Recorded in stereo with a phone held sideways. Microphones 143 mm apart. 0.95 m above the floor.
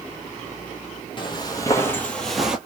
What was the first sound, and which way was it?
Footsteps, 35° left (ahead or behind).